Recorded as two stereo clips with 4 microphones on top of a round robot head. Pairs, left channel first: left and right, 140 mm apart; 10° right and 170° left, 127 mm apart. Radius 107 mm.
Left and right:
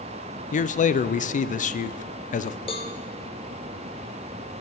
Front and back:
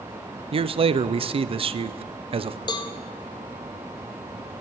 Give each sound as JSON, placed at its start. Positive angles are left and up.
{"t": 0.5, "sound": "a man speaking", "azimuth_deg": 125, "distance_m": 0.6}
{"t": 2.7, "sound": "a cowbell", "azimuth_deg": 35, "distance_m": 0.5}